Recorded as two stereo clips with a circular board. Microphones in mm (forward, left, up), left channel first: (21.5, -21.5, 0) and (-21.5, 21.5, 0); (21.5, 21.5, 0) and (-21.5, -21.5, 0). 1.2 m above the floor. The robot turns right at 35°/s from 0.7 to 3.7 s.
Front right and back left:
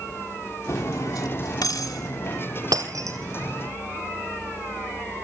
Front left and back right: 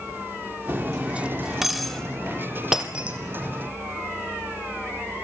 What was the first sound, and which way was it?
Cutlery clinking, 80° right.